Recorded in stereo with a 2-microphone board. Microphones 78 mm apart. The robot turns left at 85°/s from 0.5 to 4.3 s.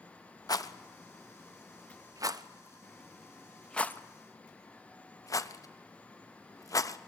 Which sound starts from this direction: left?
A rattle, at 0.5 s.